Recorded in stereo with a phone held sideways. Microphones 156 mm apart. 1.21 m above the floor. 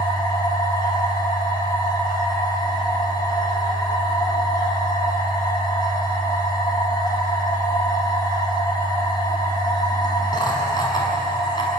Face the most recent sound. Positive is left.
turn(degrees=30)  # may be behind; listen again after turning